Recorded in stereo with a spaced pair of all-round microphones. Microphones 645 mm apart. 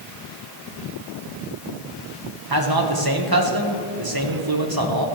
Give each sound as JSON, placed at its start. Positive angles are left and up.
{"t": 2.5, "sound": "a man speaking", "side_deg": -30, "distance_m": 1.7}